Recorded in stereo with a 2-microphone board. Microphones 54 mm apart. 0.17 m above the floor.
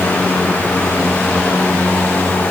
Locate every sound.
Only background noise.